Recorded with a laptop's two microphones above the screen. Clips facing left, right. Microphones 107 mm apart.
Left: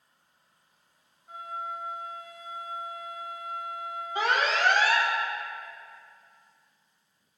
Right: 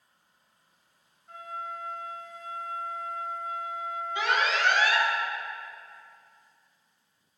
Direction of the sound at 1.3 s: 10° left (ahead or behind).